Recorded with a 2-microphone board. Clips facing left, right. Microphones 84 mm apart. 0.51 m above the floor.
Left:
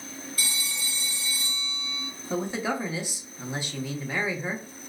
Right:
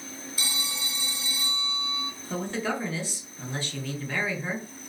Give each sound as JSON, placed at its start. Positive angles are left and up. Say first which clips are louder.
{"t": 0.4, "sound": "a phone ringing", "louder": "right 1 dB", "side_deg": -15, "distance_m": 1.5}
{"t": 2.3, "sound": "a man speaking", "louder": "left 2 dB", "side_deg": 15, "distance_m": 0.7}